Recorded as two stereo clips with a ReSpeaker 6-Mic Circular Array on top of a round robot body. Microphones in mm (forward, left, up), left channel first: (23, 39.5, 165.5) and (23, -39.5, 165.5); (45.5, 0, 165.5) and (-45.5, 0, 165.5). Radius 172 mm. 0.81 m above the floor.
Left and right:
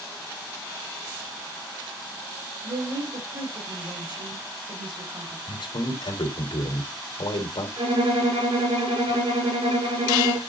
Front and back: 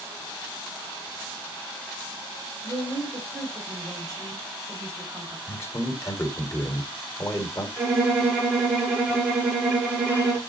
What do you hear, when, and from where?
2.6 s a woman speaking: 115° right, 5 m
5.5 s a man speaking: 65° left, 3.5 m
7.8 s a violin: 105° right, 5.5 m